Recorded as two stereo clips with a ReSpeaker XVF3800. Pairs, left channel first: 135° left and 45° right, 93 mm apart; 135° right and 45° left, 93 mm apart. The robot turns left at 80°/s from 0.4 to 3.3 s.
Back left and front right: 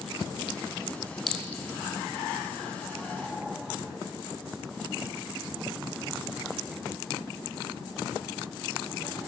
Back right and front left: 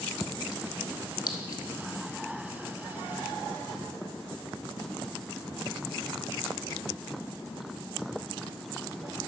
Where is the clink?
135° right, 0.9 m; by 1.6 s 165° right, 0.9 m.